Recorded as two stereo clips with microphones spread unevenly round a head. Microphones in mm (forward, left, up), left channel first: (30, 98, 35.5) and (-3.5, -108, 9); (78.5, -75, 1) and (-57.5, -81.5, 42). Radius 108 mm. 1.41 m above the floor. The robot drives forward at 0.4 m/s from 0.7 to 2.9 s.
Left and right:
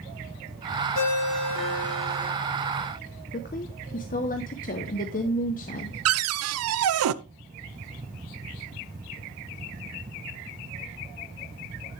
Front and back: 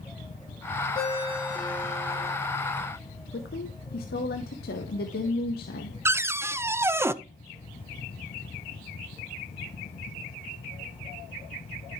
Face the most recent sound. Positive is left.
turn(degrees=-100)